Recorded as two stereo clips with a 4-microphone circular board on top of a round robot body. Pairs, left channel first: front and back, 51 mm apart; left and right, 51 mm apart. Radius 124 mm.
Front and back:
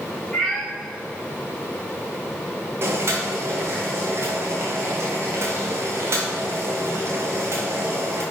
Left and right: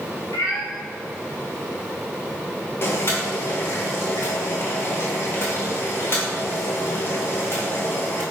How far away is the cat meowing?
About 0.8 m.